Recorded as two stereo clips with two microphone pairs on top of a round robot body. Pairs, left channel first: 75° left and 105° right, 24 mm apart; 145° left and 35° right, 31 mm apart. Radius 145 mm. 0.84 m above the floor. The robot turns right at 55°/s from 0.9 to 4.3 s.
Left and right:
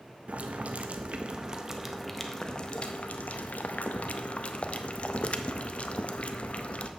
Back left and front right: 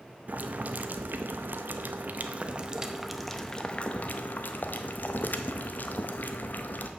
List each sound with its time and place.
0.3 s boiling: 70° right, 0.7 m; by 6.9 s 115° left, 0.7 m